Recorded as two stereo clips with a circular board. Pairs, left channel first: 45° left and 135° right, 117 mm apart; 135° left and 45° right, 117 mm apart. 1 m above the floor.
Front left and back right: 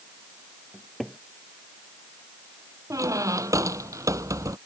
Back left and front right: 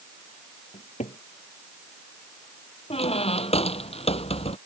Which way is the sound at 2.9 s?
165° left.